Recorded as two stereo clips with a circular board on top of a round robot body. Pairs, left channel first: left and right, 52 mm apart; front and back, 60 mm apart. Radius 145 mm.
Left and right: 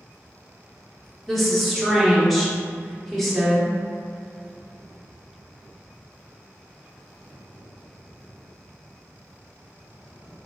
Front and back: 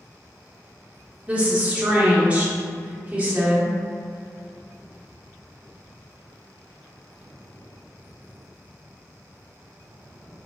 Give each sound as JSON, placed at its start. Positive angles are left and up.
{"t": 1.3, "sound": "a woman speaking", "azimuth_deg": 175, "distance_m": 0.9}